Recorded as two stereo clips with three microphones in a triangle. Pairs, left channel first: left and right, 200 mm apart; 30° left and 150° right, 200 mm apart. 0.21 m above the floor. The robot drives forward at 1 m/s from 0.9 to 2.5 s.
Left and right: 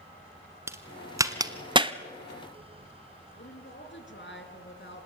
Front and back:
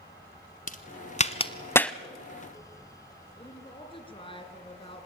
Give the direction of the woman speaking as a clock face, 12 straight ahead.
9 o'clock.